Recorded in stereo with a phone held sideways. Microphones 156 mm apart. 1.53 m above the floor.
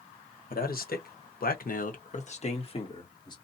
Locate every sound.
0.5 s a man speaking: 70° left (ahead or behind), 1.2 m; by 3.4 s 25° left (ahead or behind), 1.4 m